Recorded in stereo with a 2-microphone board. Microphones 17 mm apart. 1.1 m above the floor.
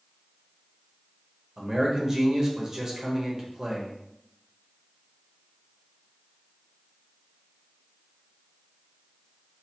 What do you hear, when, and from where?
1.6 s a man speaking: 30° right (ahead or behind), 1.0 m